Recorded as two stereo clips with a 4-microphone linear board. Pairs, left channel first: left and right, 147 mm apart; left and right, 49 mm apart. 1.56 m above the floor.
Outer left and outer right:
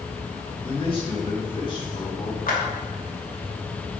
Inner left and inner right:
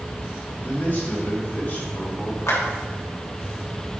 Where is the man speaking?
35° left (ahead or behind), 4 m.